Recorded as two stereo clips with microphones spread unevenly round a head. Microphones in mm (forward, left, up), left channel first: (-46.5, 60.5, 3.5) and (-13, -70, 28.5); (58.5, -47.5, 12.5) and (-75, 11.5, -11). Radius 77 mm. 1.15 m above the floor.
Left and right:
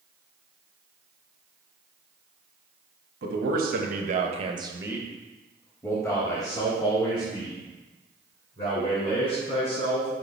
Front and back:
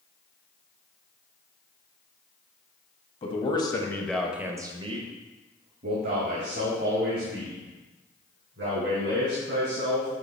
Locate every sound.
3.2 s a man speaking: 75° right, 1.4 m; by 10.1 s 150° left, 5 m